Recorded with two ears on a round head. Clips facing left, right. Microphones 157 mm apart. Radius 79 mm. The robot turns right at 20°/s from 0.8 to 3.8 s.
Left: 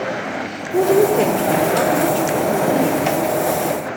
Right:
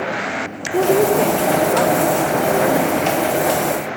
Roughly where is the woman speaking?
Ahead.